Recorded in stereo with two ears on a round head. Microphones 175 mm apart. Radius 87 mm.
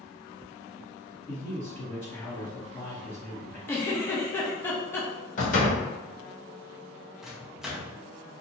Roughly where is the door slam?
Left.